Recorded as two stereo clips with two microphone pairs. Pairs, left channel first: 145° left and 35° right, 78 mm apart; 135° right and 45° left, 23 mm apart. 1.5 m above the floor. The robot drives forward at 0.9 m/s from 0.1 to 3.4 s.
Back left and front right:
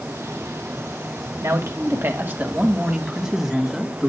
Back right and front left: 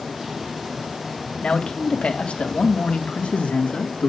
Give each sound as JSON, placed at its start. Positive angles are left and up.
{"t": 1.4, "sound": "a man speaking", "azimuth_deg": -85, "distance_m": 2.5}